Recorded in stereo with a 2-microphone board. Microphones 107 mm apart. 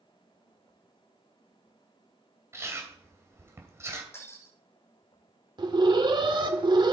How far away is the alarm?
About 1.6 m.